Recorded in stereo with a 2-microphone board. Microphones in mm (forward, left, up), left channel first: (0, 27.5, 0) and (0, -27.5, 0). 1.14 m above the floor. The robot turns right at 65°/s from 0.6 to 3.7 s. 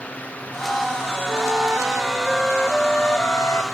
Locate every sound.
1.3 s a flute: 75° right, 0.8 m; by 3.6 s 80° left, 0.8 m